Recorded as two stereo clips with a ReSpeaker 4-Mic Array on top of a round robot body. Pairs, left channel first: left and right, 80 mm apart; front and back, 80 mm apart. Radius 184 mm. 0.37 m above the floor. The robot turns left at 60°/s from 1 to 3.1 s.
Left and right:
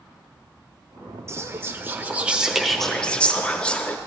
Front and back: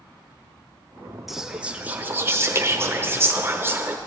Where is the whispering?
95° right, 1.0 m; by 4.0 s 155° left, 1.0 m.